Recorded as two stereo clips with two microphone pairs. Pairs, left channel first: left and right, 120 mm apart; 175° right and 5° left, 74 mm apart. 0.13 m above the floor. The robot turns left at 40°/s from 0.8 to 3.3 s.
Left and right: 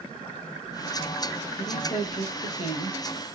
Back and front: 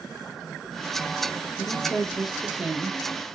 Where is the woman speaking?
115° left, 4 m; by 3.0 s 60° left, 4 m.